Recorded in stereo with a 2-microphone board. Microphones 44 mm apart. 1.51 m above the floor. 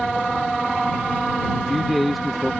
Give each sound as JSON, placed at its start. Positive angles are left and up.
{"t": 1.5, "sound": "a man speaking", "side_deg": 0}